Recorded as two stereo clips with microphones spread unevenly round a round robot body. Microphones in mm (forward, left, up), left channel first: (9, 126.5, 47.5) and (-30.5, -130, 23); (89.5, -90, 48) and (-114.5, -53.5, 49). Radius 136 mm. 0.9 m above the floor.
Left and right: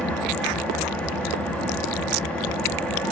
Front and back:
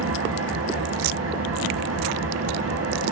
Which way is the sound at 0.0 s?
170° left.